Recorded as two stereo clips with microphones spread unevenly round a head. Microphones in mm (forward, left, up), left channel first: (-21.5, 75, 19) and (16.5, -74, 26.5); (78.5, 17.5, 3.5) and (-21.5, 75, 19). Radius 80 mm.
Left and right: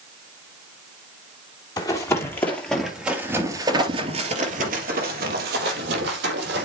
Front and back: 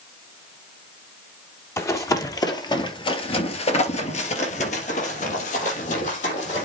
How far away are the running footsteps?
About 3 m.